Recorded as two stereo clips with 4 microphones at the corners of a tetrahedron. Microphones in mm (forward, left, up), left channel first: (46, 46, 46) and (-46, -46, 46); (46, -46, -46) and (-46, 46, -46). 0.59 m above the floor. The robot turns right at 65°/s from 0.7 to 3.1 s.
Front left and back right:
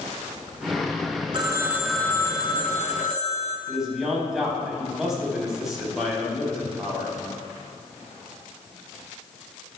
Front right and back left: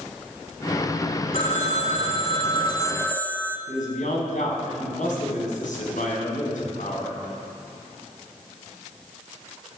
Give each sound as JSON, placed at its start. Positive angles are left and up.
{"t": 1.3, "sound": "a phone ringing", "azimuth_deg": -80, "distance_m": 1.6}
{"t": 3.7, "sound": "a man speaking", "azimuth_deg": -50, "distance_m": 4.5}